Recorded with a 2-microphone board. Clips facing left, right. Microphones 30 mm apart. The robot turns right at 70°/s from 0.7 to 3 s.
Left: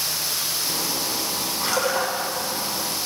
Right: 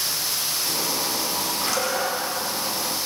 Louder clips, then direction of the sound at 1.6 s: Left 3 dB; 15° left.